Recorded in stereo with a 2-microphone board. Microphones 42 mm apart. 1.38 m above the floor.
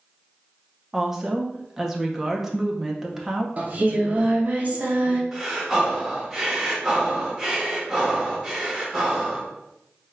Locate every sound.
0.9 s a woman speaking: 10° right (ahead or behind), 0.8 m
3.6 s singing: 35° right (ahead or behind), 0.8 m
5.3 s breathing: 10° right (ahead or behind), 1.0 m